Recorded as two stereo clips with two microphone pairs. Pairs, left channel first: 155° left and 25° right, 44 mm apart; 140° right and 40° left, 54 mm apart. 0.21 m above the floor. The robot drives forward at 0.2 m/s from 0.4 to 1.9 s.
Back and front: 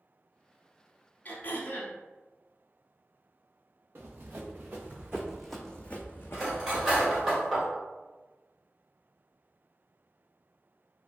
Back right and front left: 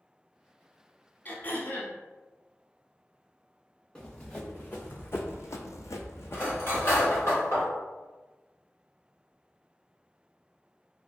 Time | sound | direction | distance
1.2 | throat clearing | 175° right | 0.6 m
4.0 | running footsteps | 65° right | 1.1 m
6.3 | cutlery clinking | 105° right | 1.6 m